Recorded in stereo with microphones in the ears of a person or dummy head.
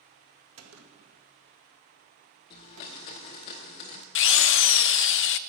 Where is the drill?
60° left (ahead or behind), 0.5 m.